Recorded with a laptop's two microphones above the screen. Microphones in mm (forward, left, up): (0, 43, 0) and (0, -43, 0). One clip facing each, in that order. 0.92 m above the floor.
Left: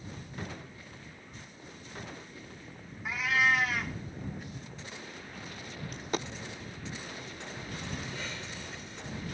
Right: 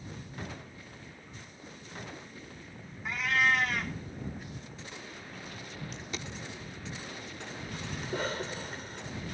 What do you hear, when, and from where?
3.0 s a cat meowing: 5° left (ahead or behind)
5.9 s a dropped coin: 50° left (ahead or behind)
8.0 s a cough: 45° right (ahead or behind)